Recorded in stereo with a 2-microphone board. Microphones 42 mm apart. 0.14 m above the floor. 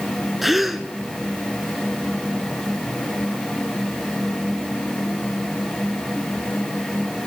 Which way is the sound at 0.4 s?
5° right (ahead or behind).